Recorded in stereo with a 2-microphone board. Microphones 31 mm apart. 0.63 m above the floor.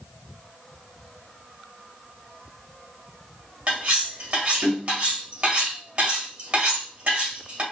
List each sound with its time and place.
3.7 s cutlery clinking: 50° right (ahead or behind), 1.6 m